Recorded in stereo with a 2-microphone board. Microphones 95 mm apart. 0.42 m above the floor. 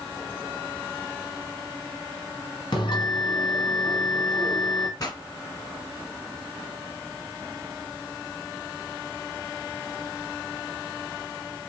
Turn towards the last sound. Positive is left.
turn(degrees=45)  # may be behind; listen again after turning